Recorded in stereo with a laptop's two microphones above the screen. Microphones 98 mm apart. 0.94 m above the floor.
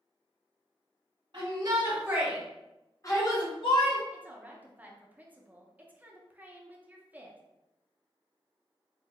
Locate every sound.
1.3 s a shout: 50° right (ahead or behind), 1.1 m; by 4.0 s 60° left (ahead or behind), 1.5 m
4.1 s a woman speaking: 15° right (ahead or behind), 0.6 m